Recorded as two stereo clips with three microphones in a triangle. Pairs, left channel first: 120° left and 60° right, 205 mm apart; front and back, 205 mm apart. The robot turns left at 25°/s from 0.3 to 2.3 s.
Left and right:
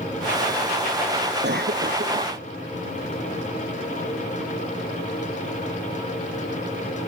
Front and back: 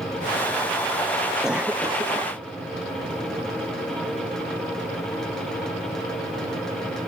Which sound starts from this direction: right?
A cough, at 1.4 s.